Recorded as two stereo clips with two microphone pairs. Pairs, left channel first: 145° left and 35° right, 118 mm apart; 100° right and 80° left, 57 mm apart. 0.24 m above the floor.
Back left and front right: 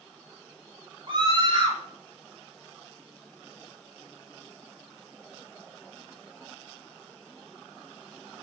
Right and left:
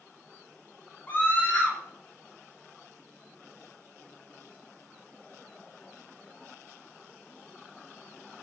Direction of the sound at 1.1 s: 65° right.